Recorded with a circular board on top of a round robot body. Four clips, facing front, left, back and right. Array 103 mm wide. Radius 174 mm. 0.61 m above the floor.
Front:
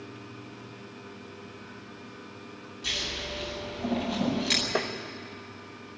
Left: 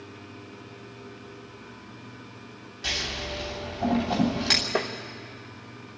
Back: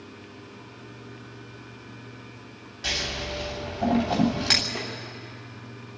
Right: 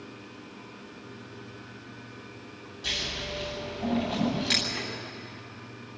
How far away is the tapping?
About 1.0 m.